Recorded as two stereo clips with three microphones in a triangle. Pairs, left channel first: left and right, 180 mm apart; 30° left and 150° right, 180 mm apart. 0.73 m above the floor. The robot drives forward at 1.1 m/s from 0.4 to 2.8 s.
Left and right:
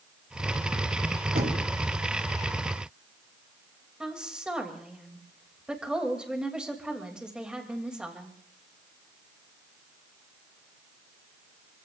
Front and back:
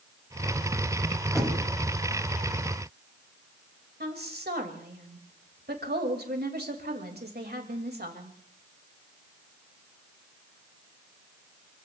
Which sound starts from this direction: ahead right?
Knocking, at 1.4 s.